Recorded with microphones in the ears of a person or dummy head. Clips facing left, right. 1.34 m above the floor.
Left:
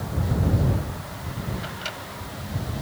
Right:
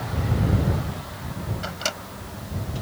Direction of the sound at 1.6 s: 50° right (ahead or behind).